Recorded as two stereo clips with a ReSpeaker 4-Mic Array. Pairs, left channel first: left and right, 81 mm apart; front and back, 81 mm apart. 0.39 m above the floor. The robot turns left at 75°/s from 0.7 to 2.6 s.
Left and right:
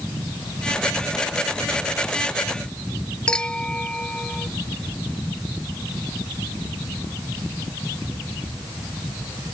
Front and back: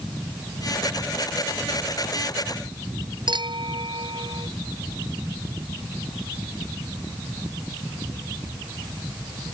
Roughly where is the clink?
Behind.